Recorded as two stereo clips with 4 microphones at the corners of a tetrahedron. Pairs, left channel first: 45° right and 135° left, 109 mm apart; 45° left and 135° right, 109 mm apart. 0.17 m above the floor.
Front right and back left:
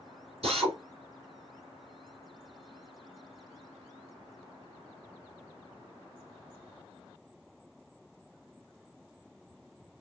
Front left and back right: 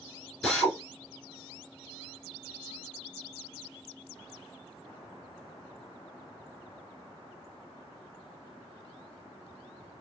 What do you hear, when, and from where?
0.4 s a drill: 130° left, 2.5 m